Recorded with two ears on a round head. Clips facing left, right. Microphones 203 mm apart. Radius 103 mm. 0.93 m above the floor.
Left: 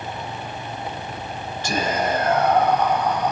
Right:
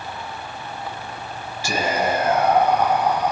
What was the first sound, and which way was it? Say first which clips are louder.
Whispering: right 1 dB; 10° right (ahead or behind).